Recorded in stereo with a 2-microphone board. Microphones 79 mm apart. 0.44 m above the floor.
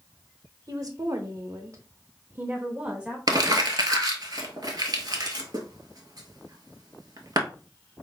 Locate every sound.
0.7 s a woman speaking: 50° right (ahead or behind), 1.1 m; by 3.2 s 15° right (ahead or behind), 1.2 m
3.3 s crumpling: 55° right (ahead or behind), 1.3 m